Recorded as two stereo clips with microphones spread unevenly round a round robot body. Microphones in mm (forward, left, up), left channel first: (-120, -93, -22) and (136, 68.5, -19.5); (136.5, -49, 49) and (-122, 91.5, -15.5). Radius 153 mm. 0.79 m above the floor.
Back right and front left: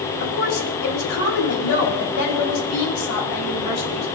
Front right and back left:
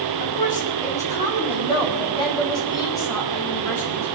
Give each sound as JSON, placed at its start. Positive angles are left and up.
{"t": 0.2, "sound": "a woman speaking", "azimuth_deg": -95, "distance_m": 4.5}